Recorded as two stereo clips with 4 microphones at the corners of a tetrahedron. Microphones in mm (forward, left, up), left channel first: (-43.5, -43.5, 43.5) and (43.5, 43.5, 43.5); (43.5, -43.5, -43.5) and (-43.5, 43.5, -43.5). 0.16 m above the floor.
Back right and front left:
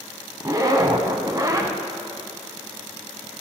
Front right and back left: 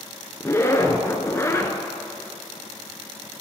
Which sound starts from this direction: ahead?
A zipper, at 0.4 s.